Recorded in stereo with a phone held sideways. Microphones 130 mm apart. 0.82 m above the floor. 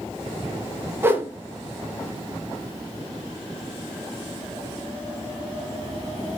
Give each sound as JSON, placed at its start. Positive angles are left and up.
{"t": 1.0, "sound": "a whoosh", "side_deg": -20, "distance_m": 0.6}